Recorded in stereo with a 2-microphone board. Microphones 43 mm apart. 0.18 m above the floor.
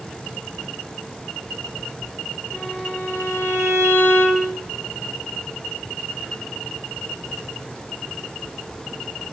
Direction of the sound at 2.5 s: 80° left.